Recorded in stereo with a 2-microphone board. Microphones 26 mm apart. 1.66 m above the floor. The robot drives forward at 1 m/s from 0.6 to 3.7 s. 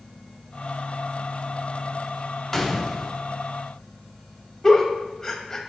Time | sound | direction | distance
2.5 | a gunshot | 5° left (ahead or behind) | 0.8 m
4.6 | a giggle | 15° left (ahead or behind) | 1.0 m